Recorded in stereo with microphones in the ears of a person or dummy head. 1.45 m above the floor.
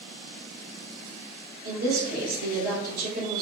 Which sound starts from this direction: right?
A woman speaking, at 1.6 s.